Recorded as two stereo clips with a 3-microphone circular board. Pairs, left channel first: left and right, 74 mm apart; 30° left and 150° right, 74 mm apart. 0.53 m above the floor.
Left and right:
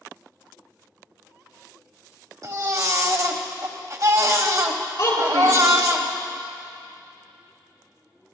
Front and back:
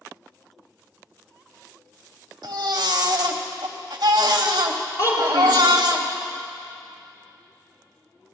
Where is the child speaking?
70° left, 5.5 m.